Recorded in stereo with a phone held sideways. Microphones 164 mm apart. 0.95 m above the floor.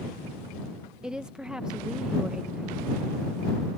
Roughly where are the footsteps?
I don't hear footsteps.